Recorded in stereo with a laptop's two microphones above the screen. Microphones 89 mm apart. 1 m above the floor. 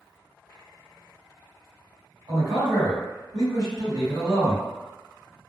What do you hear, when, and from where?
2.3 s a man speaking: 55° right (ahead or behind), 1.7 m